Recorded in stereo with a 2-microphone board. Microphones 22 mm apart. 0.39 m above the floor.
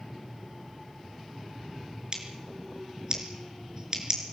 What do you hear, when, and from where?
2.1 s scissors: 35° right (ahead or behind), 4.5 m